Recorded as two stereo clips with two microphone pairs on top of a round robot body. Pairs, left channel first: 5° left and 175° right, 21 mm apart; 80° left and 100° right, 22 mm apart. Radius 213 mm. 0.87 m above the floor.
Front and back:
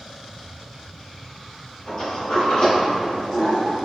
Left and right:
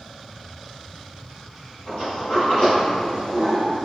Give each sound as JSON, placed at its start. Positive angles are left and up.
{"t": 1.9, "sound": "a sliding door", "azimuth_deg": 55, "distance_m": 1.8}